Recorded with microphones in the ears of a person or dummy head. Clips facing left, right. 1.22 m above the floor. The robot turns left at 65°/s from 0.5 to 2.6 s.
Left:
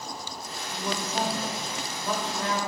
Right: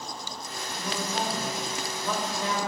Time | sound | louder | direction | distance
0.7 | a man speaking | left 1 dB | 100° left | 3 m